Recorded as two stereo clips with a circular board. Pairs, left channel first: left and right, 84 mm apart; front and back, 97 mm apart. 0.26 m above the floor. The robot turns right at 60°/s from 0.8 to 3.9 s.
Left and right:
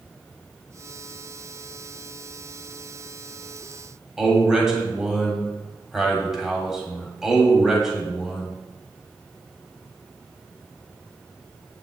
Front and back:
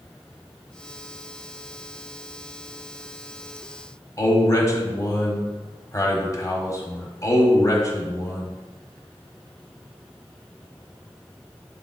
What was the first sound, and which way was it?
A man speaking, 10° right.